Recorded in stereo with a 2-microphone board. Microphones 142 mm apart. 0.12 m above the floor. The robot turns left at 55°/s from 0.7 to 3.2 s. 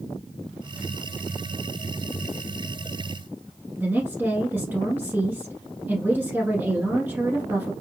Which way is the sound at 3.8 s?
15° right (ahead or behind).